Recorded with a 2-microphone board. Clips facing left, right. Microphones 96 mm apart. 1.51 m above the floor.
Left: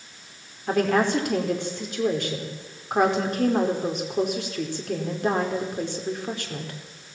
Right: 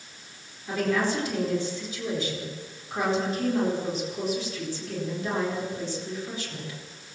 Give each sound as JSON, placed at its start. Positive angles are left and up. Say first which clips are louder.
{"t": 0.7, "sound": "a woman speaking", "louder": "left 4 dB", "side_deg": 65, "distance_m": 4.5}